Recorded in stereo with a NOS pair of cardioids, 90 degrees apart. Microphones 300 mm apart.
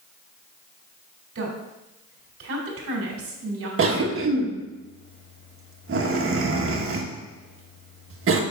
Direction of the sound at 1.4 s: 45° right.